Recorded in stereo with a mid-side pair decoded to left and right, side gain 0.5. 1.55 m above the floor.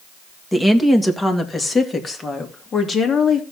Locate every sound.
0.5 s a woman speaking: 10° left, 2 m; by 3.4 s 40° left, 3 m